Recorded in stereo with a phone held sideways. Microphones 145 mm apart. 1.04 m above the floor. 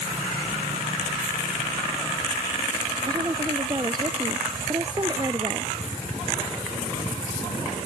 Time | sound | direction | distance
3.1 | a woman speaking | 30° right (ahead or behind) | ?